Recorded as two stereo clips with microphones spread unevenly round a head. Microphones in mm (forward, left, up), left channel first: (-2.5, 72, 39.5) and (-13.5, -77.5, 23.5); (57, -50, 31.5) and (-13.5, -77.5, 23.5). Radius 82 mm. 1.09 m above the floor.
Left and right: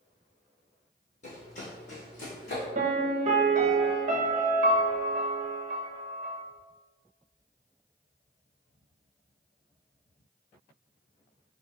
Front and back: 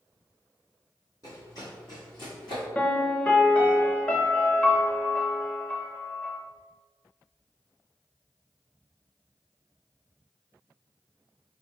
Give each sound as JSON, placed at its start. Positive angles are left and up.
{"t": 1.2, "sound": "running footsteps", "azimuth_deg": 60, "distance_m": 1.7}
{"t": 2.8, "sound": "a piano", "azimuth_deg": -50, "distance_m": 0.7}